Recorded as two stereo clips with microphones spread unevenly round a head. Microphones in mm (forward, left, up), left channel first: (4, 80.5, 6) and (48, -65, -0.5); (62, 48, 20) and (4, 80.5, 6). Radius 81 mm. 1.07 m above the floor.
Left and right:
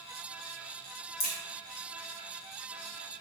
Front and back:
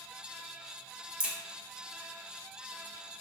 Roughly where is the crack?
Left.